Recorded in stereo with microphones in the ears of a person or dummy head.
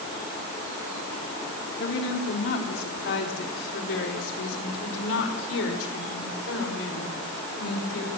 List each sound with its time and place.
1.8 s a woman speaking: 70° left (ahead or behind), 3.5 m; by 8.1 s 85° left, 6.5 m